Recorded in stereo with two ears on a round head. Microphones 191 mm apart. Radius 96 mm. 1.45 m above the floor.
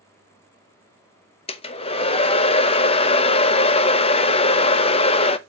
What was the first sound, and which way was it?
A hair dryer, 25° left (ahead or behind).